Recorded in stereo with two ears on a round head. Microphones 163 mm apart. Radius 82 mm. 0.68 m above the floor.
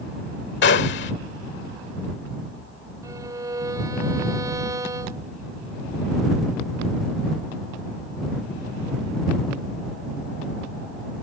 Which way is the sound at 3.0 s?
20° right (ahead or behind).